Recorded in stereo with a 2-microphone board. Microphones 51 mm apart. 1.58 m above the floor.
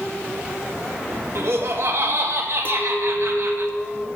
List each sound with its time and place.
1.4 s laughter: 65° right (ahead or behind), 1.8 m
2.6 s a clink: 30° left (ahead or behind), 1.6 m